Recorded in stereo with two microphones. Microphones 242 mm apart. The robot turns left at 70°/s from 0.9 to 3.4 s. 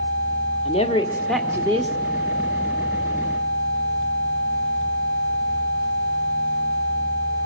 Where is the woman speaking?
30° left, 1.5 m; by 1.9 s 40° right, 1.5 m.